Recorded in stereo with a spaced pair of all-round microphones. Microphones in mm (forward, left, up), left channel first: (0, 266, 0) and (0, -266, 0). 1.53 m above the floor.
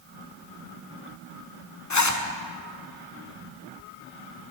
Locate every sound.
1.9 s a zipper: 35° left (ahead or behind), 0.6 m